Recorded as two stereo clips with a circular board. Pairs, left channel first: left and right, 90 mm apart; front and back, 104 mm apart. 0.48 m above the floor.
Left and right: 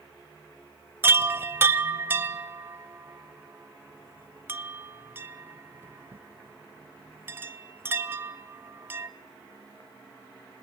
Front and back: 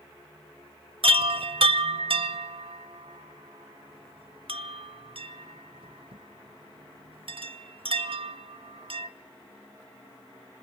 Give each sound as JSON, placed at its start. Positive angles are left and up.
{"t": 1.0, "sound": "a chime", "azimuth_deg": -155, "distance_m": 0.6}